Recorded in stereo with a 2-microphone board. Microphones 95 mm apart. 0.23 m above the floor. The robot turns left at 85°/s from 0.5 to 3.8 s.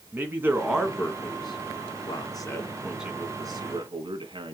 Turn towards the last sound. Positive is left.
turn(degrees=-55)  # may be behind; listen again after turning